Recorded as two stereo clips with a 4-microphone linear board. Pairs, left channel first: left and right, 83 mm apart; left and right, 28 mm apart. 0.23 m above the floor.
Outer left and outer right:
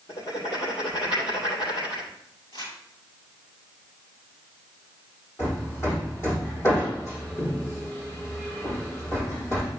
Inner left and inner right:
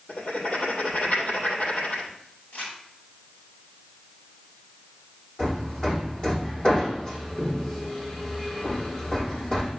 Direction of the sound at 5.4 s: 35° left (ahead or behind).